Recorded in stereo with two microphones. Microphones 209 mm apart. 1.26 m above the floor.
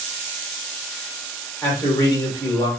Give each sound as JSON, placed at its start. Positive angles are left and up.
{"t": 1.6, "sound": "a man speaking", "side_deg": 15, "distance_m": 1.5}